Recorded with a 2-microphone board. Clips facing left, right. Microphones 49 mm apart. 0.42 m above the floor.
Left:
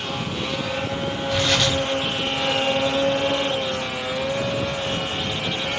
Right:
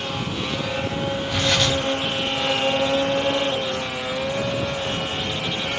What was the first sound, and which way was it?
Tearing paper, centre (ahead or behind).